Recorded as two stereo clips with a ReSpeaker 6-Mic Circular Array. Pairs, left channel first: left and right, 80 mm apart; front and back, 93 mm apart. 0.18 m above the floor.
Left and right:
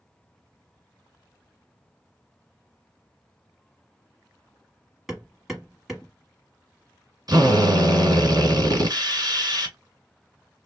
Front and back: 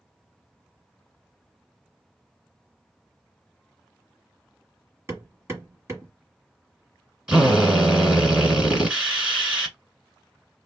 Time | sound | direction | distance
5.1 | hammering | 170° right | 1.2 m
7.3 | a drill | 100° right | 1.4 m